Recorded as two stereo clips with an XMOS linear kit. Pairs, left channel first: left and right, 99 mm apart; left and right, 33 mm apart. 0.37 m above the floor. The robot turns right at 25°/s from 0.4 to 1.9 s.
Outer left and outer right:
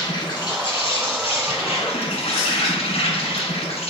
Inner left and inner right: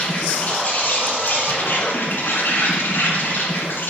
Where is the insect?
45° left, 1.6 m; by 3.9 s 85° left, 1.6 m.